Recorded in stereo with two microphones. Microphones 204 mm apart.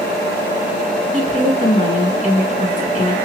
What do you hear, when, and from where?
1.1 s a woman speaking: 40° left (ahead or behind), 2.0 m